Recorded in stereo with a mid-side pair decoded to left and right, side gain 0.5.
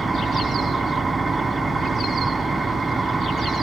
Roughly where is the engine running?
Ahead right.